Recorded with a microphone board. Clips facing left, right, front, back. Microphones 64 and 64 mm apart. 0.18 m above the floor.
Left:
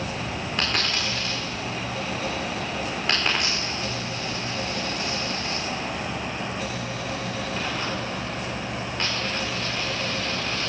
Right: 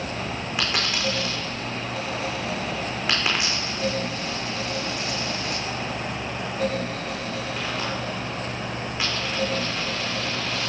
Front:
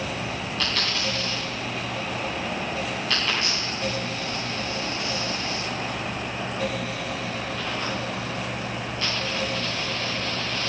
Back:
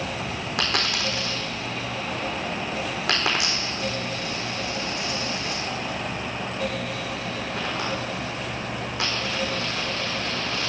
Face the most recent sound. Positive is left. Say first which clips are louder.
# right 1 dB, back 3 dB
turn(degrees=-175)